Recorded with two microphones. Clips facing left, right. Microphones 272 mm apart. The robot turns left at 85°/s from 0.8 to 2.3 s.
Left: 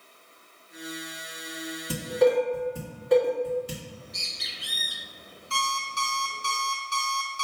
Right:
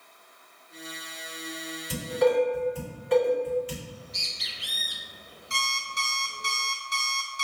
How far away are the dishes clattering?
About 1.5 m.